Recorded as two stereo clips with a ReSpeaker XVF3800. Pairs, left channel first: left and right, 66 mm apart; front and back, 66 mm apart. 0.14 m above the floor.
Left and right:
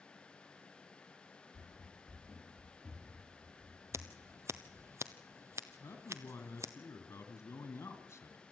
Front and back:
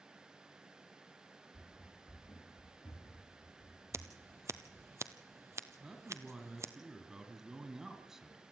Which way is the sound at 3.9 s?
135° right.